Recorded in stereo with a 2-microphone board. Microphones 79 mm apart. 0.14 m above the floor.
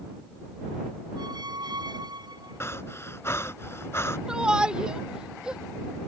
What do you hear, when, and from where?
1.2 s a squeak: 70° right (ahead or behind)
2.6 s breathing: 35° left (ahead or behind)
4.3 s a shout: 10° right (ahead or behind)